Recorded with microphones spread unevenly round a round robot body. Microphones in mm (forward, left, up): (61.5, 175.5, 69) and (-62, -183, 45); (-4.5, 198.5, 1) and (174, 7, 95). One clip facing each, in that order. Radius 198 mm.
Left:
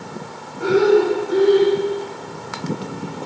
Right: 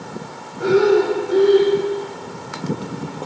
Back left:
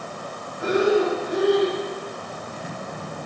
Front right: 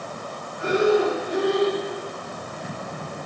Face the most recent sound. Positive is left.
turn(degrees=-155)